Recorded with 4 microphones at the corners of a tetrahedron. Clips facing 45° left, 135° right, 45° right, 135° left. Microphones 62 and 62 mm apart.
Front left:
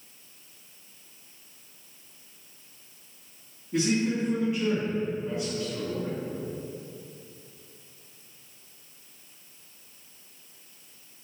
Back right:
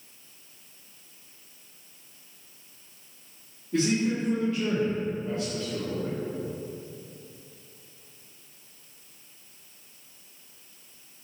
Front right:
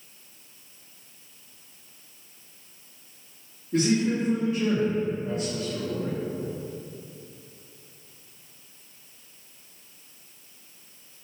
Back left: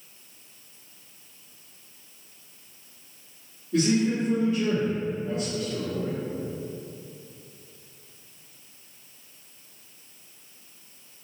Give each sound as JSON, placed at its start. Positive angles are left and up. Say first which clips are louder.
{"t": 3.7, "sound": "a man speaking", "louder": "even, even", "azimuth_deg": -20, "distance_m": 1.7}